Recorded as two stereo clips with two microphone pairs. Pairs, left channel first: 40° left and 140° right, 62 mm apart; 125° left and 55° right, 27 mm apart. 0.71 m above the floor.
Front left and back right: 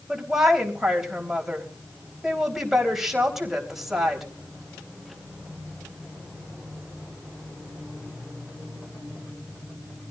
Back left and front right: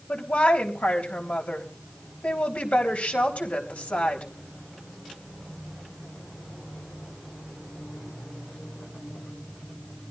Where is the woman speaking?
135° left, 3.5 m.